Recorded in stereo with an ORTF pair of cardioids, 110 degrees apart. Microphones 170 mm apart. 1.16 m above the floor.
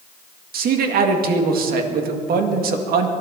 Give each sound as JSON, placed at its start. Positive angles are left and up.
{"t": 0.5, "sound": "a man speaking", "azimuth_deg": -65, "distance_m": 2.0}